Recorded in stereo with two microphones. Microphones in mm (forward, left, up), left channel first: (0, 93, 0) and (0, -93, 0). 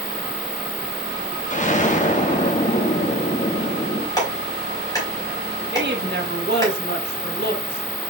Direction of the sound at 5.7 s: 65° right (ahead or behind).